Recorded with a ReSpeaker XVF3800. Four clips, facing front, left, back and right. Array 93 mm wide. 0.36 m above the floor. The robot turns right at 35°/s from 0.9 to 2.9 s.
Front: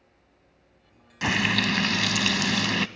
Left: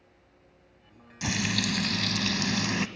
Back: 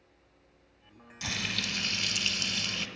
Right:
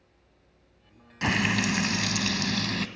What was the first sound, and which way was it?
Frying, 40° right.